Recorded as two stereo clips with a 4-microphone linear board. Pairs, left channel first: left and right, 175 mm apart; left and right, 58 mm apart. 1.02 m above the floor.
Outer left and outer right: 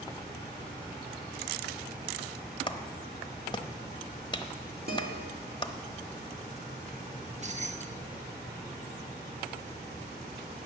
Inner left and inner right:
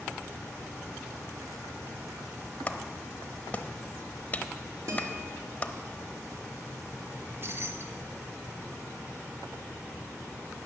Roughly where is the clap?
Left.